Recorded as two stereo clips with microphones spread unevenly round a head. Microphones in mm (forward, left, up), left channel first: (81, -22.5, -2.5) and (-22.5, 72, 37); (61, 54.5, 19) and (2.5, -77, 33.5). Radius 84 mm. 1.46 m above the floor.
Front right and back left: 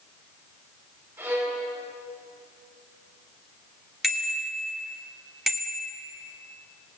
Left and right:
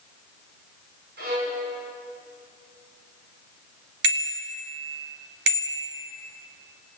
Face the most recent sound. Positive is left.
turn(degrees=-135)